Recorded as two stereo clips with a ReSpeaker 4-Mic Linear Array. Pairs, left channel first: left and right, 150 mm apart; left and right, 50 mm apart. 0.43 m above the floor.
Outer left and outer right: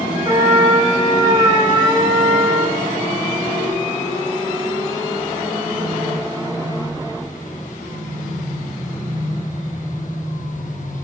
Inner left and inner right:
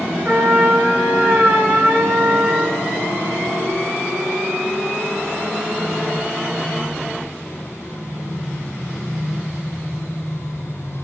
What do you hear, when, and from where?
0.2 s a trumpet: 35° right (ahead or behind), 0.9 m